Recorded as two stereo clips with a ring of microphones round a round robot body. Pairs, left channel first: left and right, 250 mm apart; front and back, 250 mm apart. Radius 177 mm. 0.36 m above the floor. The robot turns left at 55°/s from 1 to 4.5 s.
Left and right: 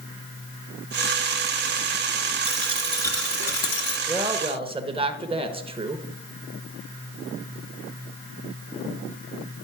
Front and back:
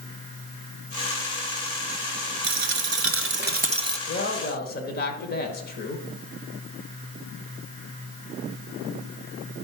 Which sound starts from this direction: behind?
A dropped coin, at 2.4 s.